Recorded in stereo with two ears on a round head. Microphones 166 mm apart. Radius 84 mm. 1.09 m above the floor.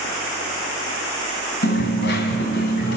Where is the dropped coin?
60° left (ahead or behind), 3.5 m.